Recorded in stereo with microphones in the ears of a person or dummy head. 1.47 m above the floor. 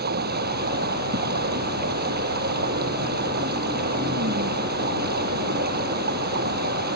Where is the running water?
55° right (ahead or behind).